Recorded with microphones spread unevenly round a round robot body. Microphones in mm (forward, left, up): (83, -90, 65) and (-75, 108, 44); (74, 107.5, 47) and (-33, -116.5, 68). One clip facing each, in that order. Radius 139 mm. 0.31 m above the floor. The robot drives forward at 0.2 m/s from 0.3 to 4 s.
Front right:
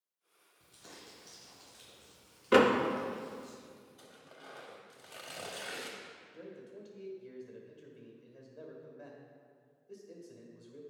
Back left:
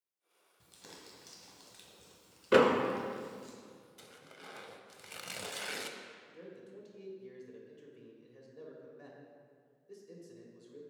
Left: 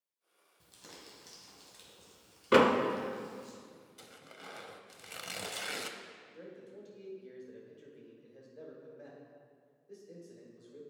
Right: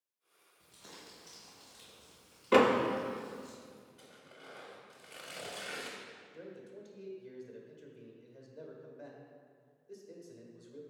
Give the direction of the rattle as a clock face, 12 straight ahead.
No rattle in this recording.